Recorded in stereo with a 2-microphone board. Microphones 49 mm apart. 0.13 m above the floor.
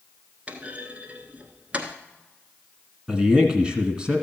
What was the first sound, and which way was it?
A clunk, 25° right (ahead or behind).